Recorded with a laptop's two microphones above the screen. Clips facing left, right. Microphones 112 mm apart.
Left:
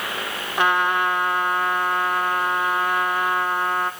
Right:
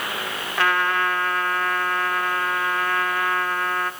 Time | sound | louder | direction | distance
0.6 | a trumpet | left 2 dB | 20° left (ahead or behind) | 1.1 m